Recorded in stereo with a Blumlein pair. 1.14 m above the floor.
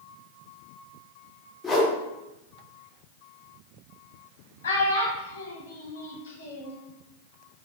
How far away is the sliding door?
I don't hear a sliding door.